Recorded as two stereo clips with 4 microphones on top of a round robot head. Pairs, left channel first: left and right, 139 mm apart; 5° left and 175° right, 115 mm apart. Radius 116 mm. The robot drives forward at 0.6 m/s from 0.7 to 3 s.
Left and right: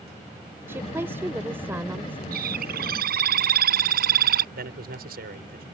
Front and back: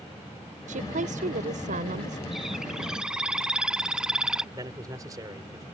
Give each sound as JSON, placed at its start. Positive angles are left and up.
{"t": 0.7, "sound": "a woman speaking", "azimuth_deg": -165}
{"t": 2.3, "sound": "a bird", "azimuth_deg": -85}
{"t": 4.5, "sound": "a man speaking", "azimuth_deg": -105}